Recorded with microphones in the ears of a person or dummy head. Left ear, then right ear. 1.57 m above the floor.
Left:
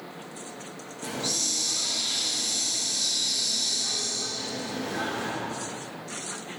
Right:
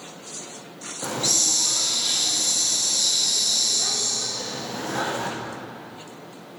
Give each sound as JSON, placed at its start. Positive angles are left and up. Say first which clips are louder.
{"t": 1.0, "sound": "a hiss", "louder": "right 6 dB", "side_deg": -40, "distance_m": 0.7}